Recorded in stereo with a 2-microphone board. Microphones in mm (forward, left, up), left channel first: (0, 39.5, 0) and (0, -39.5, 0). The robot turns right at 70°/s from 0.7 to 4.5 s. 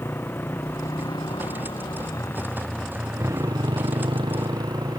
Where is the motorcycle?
30° left (ahead or behind); by 5.0 s 55° right (ahead or behind).